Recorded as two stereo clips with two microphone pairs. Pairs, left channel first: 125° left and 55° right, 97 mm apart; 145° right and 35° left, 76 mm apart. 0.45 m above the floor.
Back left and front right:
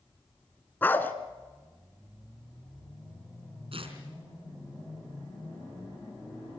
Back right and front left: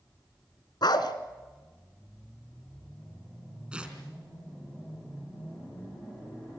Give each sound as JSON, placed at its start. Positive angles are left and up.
{"t": 0.8, "sound": "a dog barking", "azimuth_deg": -165, "distance_m": 1.6}
{"t": 3.7, "sound": "tearing paper", "azimuth_deg": -40, "distance_m": 3.5}